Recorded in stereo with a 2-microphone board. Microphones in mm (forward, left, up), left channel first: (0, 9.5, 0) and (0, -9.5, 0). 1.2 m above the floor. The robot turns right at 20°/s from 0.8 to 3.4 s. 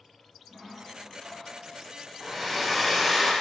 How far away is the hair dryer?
About 1.0 m.